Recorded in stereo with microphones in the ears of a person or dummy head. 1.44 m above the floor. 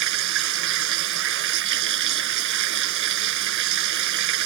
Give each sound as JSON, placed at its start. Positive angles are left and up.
{"t": 0.0, "sound": "running water", "side_deg": -65}